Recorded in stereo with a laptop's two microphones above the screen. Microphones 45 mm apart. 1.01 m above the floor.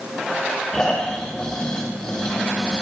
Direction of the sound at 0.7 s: 15° left (ahead or behind).